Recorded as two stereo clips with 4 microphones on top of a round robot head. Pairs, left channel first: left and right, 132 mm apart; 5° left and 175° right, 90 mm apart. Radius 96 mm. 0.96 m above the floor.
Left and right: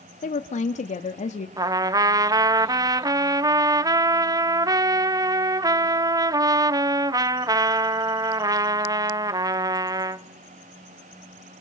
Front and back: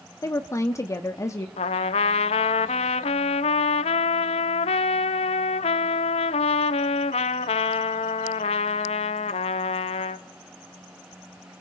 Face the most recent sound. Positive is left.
turn(degrees=-25)